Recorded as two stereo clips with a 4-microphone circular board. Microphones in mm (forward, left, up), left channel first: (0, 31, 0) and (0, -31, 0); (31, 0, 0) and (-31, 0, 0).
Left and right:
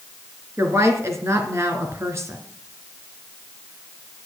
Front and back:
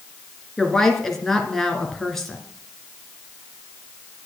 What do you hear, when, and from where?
0.6 s a woman speaking: 80° right, 2.5 m